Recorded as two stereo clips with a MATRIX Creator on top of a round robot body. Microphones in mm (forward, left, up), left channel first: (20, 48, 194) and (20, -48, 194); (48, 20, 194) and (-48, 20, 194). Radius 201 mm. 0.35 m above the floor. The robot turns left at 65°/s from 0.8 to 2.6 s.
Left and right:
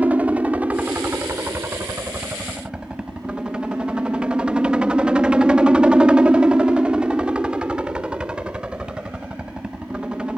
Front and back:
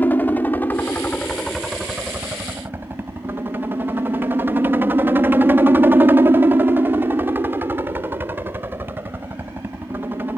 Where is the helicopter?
40° right; by 10.4 s 155° right.